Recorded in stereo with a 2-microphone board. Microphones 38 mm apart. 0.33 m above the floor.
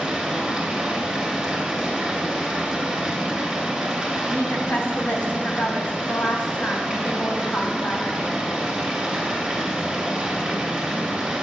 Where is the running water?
10° right (ahead or behind), 2 m.